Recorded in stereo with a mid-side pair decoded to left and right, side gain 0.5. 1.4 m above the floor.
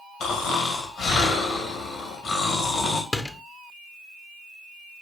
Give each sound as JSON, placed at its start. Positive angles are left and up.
{"t": 0.2, "sound": "snoring", "azimuth_deg": 60, "distance_m": 2.5}
{"t": 3.1, "sound": "a door slam", "azimuth_deg": 25, "distance_m": 0.9}